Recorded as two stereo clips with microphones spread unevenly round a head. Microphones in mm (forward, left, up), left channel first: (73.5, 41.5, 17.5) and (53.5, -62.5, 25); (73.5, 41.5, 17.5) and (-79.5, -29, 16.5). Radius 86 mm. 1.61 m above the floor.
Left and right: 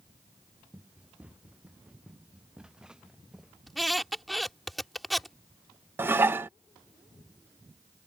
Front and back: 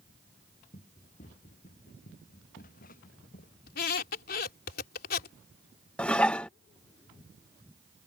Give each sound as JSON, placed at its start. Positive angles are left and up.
{"t": 0.7, "sound": "running footsteps", "azimuth_deg": -25}
{"t": 3.7, "sound": "a squeak", "azimuth_deg": -10}
{"t": 6.0, "sound": "dishes clattering", "azimuth_deg": -55}